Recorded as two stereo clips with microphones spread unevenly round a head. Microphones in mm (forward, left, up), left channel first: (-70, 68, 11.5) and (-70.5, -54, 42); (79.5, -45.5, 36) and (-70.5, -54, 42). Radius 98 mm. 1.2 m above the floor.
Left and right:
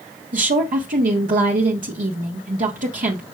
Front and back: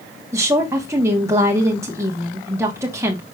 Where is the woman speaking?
105° right, 1.2 m.